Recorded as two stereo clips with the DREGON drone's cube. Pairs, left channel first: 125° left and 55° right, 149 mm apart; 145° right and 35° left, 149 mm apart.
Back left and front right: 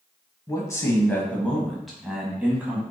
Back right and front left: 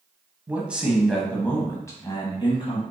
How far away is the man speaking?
About 1.1 m.